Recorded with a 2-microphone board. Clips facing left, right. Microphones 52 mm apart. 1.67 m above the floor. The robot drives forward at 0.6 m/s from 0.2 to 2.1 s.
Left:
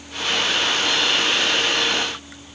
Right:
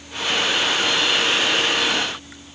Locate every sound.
Only background noise.